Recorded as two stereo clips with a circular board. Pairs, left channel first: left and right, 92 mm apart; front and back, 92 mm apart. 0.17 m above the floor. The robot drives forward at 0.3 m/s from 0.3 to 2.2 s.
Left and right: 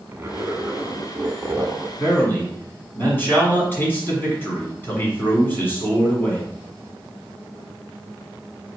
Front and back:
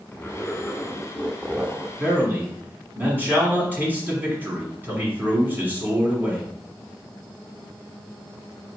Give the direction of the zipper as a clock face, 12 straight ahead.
2 o'clock.